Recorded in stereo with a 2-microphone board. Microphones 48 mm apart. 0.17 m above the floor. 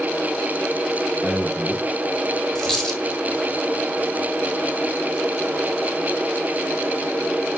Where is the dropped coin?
5° left (ahead or behind), 1.8 m.